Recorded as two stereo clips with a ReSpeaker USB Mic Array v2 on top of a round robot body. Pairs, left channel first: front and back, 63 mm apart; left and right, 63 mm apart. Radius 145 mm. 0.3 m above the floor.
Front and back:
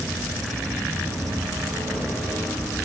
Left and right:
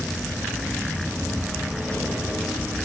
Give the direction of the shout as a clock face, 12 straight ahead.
I don't hear a shout.